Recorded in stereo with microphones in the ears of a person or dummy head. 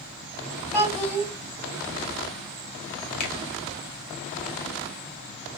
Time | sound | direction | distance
0.7 | a child speaking | 10° left (ahead or behind) | 1.9 m
3.2 | a finger snap | 45° left (ahead or behind) | 1.0 m